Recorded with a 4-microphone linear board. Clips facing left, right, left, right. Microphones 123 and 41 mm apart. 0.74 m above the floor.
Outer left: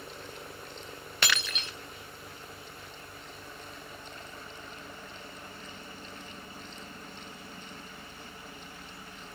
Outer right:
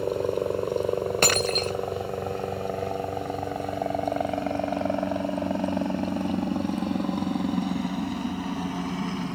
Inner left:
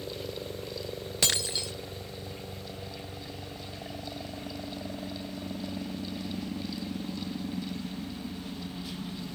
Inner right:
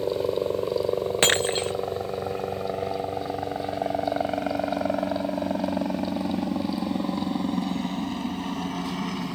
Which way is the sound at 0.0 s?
65° right (ahead or behind).